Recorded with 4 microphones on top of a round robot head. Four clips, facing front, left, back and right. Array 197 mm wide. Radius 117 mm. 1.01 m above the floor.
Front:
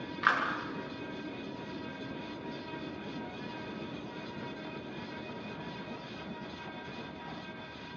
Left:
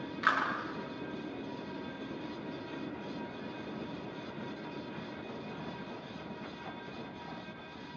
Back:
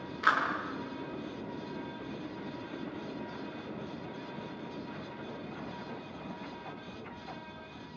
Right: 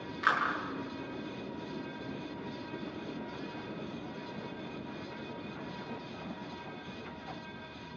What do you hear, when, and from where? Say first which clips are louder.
0.2 s a clap: right 1 dB, back 1 dB; 15° left, 9 m